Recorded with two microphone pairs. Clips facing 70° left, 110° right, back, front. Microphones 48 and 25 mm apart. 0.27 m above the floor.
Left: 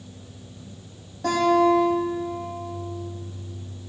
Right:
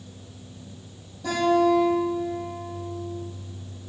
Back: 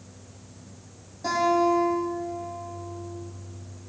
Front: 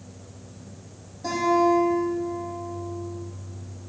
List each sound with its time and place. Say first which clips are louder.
1.2 s a guitar: left 2 dB, front 1 dB; 105° left, 7 m